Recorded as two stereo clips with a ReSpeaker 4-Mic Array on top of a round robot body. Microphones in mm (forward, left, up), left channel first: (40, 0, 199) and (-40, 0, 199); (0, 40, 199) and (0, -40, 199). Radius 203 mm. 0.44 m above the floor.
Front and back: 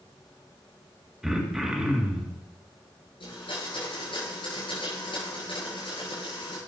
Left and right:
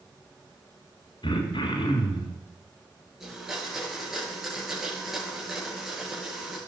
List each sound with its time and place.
1.2 s throat clearing: 95° left, 3 m
3.2 s a blender: 5° right, 10 m